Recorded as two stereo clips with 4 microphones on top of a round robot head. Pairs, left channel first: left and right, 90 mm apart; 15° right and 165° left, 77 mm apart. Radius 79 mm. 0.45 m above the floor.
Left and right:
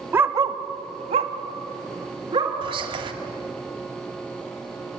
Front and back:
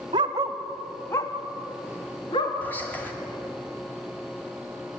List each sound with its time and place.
0.1 s a dog barking: 160° right, 1.0 m; by 2.5 s 45° right, 2.5 m
2.6 s whispering: 85° right, 2.5 m